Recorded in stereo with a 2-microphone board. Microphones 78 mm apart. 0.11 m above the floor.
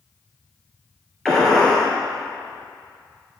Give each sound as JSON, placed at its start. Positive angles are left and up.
{"t": 1.2, "sound": "a gunshot", "side_deg": 5, "distance_m": 2.0}